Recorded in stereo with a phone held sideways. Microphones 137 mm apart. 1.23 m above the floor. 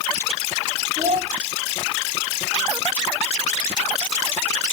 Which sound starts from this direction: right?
A child speaking, at 1.0 s.